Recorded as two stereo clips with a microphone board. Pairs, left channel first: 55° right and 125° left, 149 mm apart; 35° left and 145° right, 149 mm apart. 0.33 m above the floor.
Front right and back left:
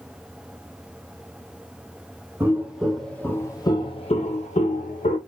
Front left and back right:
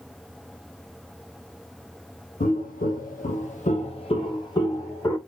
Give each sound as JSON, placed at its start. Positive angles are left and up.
{"t": 2.4, "sound": "footsteps", "azimuth_deg": 50, "distance_m": 0.9}